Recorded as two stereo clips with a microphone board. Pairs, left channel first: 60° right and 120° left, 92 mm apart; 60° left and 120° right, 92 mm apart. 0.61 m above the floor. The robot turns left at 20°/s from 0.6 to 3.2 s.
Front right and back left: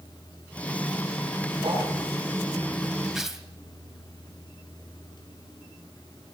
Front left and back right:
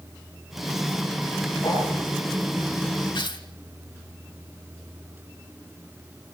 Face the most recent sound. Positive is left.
turn(degrees=35)